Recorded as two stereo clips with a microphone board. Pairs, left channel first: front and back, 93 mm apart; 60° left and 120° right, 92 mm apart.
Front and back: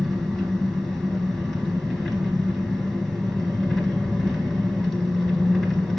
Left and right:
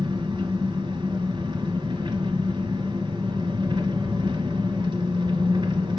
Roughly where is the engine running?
Right.